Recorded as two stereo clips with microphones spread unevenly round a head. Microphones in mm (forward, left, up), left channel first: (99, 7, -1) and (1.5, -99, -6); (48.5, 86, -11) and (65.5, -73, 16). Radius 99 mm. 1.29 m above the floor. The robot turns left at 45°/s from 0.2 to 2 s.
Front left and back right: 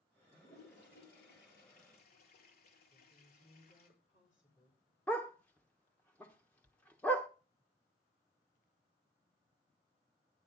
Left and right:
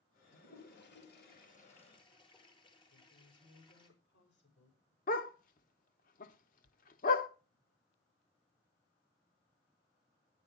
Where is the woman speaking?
100° left, 5.5 m.